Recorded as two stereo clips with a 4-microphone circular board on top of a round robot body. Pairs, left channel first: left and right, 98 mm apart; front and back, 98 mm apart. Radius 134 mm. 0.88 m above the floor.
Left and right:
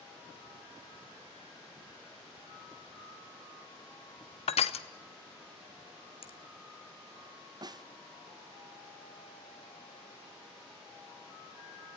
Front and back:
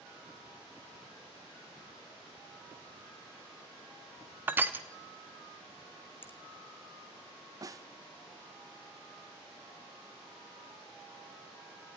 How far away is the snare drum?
About 1.0 m.